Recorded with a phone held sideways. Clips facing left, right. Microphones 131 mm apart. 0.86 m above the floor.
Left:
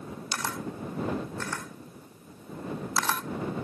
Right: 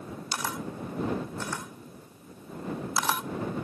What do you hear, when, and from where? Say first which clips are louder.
0.3 s a camera shutter: even; 15° right (ahead or behind)